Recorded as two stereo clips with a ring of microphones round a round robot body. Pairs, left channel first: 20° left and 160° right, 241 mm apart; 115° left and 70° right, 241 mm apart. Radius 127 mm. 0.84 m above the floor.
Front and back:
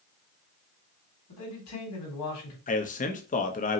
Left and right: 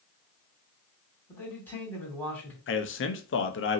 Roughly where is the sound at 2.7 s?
Left.